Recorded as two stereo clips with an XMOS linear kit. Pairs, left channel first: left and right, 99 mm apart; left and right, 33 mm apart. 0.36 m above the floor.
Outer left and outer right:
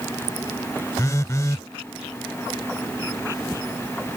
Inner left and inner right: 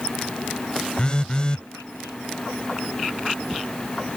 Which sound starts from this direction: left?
A phone buzzing, at 1.0 s.